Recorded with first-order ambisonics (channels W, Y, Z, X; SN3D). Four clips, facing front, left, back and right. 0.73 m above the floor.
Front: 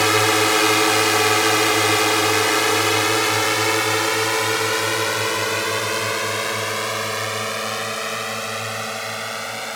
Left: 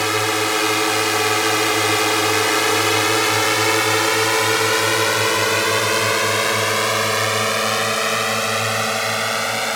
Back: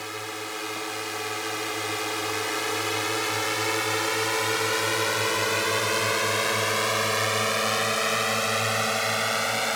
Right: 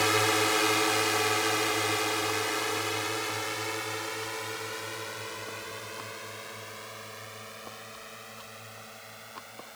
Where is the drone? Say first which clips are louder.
Left 6 dB, front 17 dB; 20° left; by 9.8 s 100° left.